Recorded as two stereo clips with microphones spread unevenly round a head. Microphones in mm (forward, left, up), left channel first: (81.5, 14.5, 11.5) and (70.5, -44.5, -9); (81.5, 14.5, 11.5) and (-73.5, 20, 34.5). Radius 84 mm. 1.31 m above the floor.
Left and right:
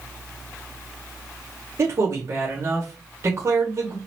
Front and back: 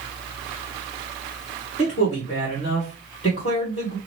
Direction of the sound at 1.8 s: 60° right.